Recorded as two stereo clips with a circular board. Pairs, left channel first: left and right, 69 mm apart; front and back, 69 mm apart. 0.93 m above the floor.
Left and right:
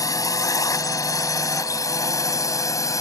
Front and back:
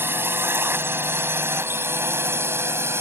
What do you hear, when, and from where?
0.0 s a drone: 125° left; by 3.0 s 130° left